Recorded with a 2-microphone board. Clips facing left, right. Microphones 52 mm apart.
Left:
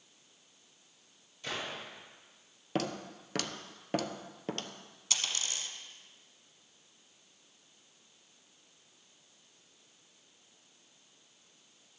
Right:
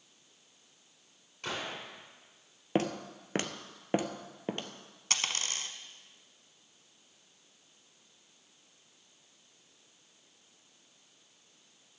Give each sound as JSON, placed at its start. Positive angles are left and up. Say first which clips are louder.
{"t": 1.4, "sound": "a gunshot", "louder": "right 1 dB", "side_deg": -65, "distance_m": 5.5}
{"t": 2.8, "sound": "footsteps", "louder": "right 4 dB", "side_deg": -30, "distance_m": 0.9}
{"t": 5.1, "sound": "a dropped coin", "louder": "right 3 dB", "side_deg": -55, "distance_m": 0.9}